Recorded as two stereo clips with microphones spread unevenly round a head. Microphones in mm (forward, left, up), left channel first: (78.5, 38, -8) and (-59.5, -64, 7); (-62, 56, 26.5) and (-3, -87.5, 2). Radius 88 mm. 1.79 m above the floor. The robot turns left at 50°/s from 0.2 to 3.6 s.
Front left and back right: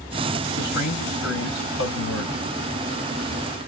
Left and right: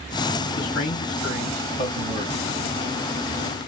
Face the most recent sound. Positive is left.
turn(degrees=-50)